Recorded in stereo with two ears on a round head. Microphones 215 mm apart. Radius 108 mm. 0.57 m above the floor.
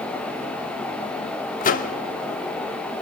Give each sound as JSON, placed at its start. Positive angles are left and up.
{"t": 1.6, "sound": "a microwave", "side_deg": 35, "distance_m": 0.9}